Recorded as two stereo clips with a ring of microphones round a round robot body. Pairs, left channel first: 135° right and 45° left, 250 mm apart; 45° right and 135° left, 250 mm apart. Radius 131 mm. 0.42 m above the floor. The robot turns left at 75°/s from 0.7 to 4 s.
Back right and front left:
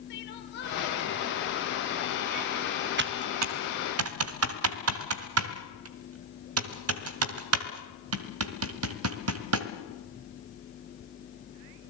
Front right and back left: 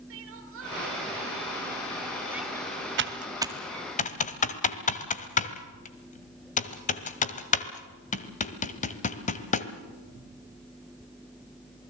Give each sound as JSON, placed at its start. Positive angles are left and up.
{"t": 0.1, "sound": "crying", "azimuth_deg": 175, "distance_m": 3.0}
{"t": 3.0, "sound": "typing on a keyboard", "azimuth_deg": 90, "distance_m": 1.8}